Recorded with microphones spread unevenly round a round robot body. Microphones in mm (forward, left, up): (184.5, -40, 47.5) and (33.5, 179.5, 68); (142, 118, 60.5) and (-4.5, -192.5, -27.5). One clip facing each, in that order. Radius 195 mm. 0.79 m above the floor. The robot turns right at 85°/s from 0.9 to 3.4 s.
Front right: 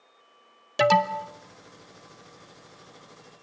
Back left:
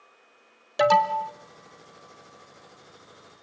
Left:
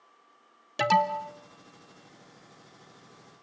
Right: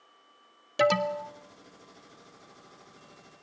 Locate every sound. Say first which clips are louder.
0.8 s an alarm: even, right 3 dB; 30° right, 1.5 m; by 1.3 s 5° left, 1.5 m